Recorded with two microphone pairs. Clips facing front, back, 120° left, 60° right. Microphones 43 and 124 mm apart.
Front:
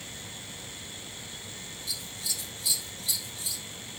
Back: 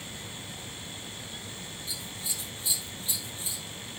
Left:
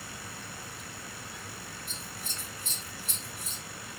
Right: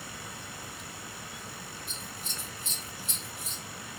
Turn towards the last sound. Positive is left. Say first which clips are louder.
# front 2 dB, right 1 dB
turn(degrees=-130)